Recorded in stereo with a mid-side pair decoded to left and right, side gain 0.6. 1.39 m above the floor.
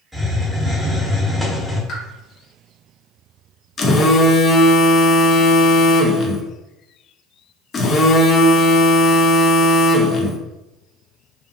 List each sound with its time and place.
0.1 s a hiss: 5° left, 0.9 m
1.9 s a pop: 55° left, 1.0 m
3.8 s a phone buzzing: 40° left, 0.5 m